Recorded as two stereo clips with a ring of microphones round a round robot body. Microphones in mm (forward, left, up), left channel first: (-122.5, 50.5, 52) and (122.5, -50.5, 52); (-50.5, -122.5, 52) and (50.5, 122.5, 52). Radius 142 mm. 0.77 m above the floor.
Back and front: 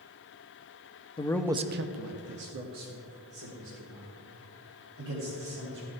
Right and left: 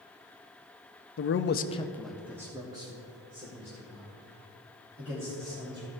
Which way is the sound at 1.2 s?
140° right.